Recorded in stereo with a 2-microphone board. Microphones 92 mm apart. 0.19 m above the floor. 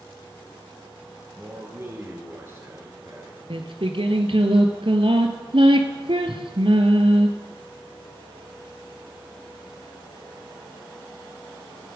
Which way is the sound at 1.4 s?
25° right (ahead or behind).